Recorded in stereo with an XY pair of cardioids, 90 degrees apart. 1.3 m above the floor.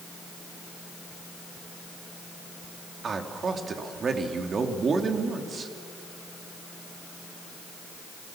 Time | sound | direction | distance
3.0 | a man speaking | 45° right | 2.5 m